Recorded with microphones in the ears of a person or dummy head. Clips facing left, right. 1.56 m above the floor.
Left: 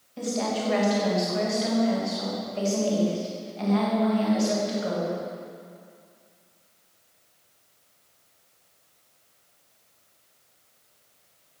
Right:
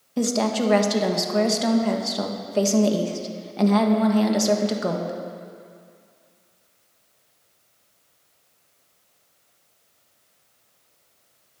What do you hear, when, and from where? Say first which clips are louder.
0.2 s a woman speaking: right 6 dB; 70° right (ahead or behind), 1.5 m